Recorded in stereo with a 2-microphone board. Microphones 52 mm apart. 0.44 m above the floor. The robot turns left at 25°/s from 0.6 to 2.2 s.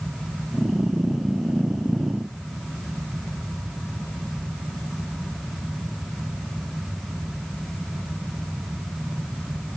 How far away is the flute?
I don't hear a flute.